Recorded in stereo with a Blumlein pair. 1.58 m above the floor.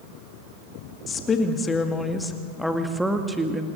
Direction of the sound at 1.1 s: 20° left.